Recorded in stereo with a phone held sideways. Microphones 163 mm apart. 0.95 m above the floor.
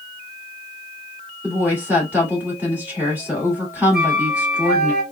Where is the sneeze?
No sneeze in this recording.